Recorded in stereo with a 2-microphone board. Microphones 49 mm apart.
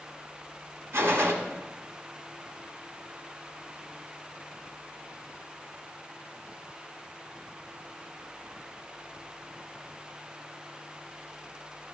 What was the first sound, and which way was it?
A gunshot, 70° right (ahead or behind).